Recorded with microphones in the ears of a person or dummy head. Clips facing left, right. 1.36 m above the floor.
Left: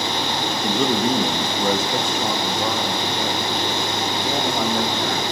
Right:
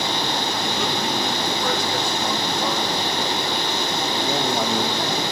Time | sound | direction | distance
0.6 | a man speaking | 45° left (ahead or behind) | 2 m